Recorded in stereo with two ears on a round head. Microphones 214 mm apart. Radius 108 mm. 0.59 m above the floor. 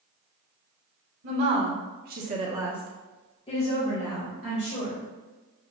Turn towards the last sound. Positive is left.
turn(degrees=45)  # may be behind; listen again after turning